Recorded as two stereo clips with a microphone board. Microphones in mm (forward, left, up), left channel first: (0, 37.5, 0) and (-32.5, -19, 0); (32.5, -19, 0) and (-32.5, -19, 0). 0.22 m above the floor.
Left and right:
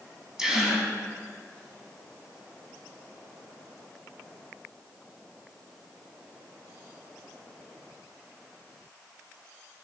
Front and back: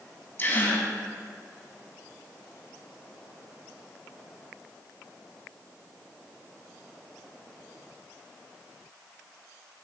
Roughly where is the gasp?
Ahead right.